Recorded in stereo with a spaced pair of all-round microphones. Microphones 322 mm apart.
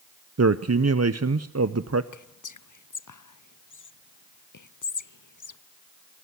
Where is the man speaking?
50° right (ahead or behind), 0.6 m.